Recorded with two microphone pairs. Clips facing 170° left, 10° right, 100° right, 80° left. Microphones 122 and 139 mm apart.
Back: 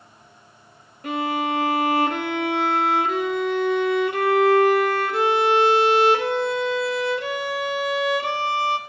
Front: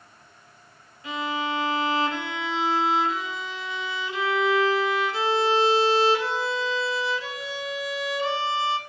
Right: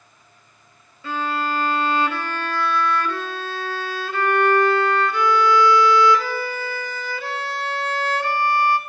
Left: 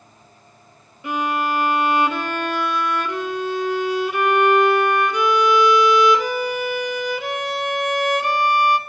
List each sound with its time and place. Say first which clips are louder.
1.0 s a violin: back 5 dB, left 2 dB; 150° left, 0.6 m